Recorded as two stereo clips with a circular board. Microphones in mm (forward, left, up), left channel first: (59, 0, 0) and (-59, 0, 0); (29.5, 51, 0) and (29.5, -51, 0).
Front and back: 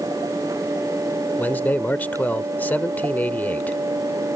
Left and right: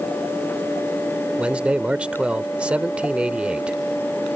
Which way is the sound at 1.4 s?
35° right.